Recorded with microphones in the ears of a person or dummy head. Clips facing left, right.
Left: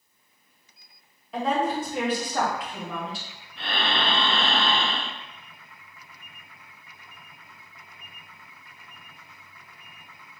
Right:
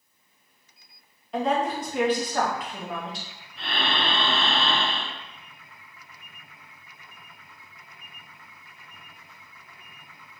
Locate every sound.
1.3 s a woman speaking: 5° left (ahead or behind), 0.8 m
3.6 s breathing: 60° left (ahead or behind), 1.9 m